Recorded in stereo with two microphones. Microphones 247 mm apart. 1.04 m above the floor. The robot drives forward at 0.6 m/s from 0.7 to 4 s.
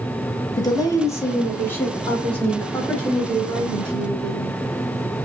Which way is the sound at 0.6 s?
15° left (ahead or behind).